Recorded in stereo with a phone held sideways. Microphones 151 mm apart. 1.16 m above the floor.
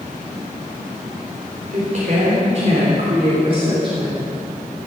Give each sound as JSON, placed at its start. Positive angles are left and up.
{"t": 1.7, "sound": "a woman speaking", "side_deg": -60, "distance_m": 3.5}